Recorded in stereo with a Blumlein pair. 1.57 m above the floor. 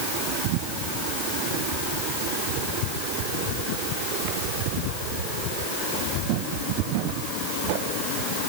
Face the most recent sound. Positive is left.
No sound to turn to.